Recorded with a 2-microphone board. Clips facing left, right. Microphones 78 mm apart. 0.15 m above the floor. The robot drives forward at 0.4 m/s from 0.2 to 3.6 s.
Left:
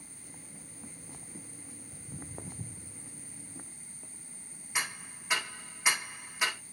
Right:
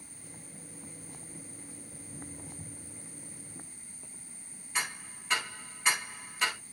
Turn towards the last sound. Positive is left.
turn(degrees=10)  # may be behind; listen again after turning